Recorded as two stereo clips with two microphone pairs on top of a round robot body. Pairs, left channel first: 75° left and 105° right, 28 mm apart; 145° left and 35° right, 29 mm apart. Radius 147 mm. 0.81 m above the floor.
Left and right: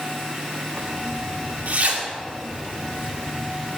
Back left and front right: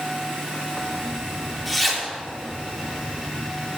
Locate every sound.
0.8 s a zipper: 120° right, 3 m